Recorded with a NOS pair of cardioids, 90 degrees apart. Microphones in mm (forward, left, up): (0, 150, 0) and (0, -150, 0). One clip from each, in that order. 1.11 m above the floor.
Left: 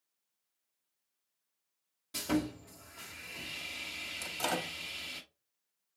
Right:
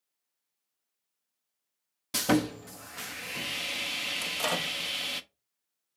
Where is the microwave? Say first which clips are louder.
Right 2 dB; 15° right, 0.8 m.